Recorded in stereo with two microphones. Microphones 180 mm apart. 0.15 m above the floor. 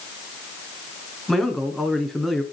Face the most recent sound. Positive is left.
turn(degrees=0)  # may be behind; listen again after turning